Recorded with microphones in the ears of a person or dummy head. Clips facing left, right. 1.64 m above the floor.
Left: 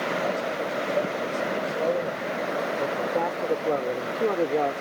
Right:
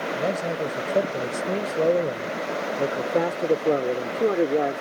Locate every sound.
0.1 s a man speaking: 55° right (ahead or behind); by 4.8 s 15° right (ahead or behind)